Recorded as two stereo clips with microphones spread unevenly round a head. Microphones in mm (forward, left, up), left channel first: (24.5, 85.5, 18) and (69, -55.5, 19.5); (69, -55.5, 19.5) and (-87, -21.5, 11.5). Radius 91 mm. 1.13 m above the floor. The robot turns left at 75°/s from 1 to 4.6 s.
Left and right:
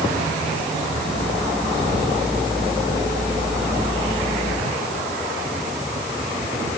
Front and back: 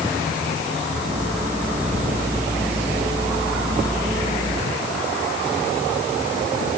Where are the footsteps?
I don't hear footsteps.